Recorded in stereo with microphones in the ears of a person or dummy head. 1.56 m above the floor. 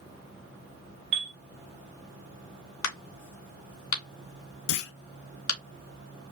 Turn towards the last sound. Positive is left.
turn(degrees=70)  # may be behind; listen again after turning